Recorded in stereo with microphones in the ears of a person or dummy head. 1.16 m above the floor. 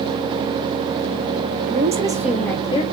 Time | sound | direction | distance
1.7 | a woman speaking | 45° right (ahead or behind) | 0.5 m